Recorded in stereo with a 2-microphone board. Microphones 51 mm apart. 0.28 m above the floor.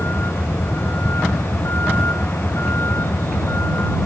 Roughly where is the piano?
I don't hear a piano.